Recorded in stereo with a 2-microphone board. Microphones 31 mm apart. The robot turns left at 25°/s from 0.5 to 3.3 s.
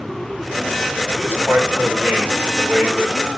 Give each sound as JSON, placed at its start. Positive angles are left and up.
{"t": 1.2, "sound": "a man speaking", "azimuth_deg": -80, "distance_m": 6.0}